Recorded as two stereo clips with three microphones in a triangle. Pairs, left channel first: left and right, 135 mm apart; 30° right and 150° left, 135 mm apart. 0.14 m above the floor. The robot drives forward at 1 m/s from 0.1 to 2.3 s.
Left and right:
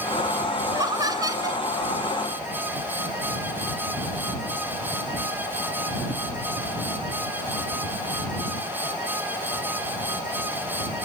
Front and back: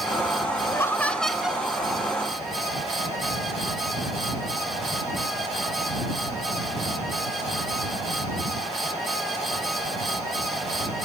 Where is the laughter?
65° right, 1.5 m; by 1.6 s 135° right, 1.6 m.